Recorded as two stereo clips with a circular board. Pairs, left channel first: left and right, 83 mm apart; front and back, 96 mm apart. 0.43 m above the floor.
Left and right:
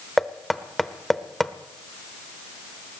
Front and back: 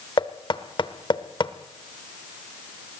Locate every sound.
0.2 s knocking: 5° left, 0.9 m